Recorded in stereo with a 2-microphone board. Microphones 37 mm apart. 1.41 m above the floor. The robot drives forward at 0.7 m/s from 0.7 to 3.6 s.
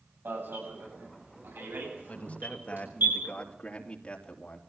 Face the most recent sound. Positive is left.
turn(degrees=30)  # may be behind; listen again after turning